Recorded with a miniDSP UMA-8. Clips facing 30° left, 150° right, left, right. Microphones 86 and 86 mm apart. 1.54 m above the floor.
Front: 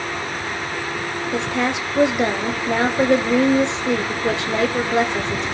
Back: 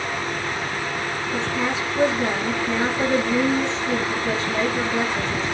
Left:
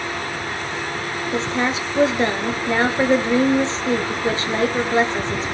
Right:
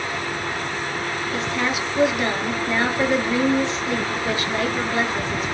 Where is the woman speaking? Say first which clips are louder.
Front 3 dB, left 4 dB; 30° left, 0.6 m.